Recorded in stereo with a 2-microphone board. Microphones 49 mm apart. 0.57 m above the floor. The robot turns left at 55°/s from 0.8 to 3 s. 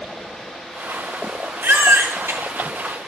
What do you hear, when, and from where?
1.6 s a baby crying: 55° right, 1.0 m; by 2.4 s 100° right, 1.0 m